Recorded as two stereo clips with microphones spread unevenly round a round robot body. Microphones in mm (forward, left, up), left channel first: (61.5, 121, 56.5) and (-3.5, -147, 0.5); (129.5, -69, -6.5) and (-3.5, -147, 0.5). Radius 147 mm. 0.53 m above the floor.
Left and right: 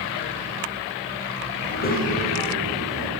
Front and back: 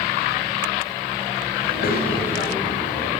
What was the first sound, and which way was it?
A child speaking, 20° left.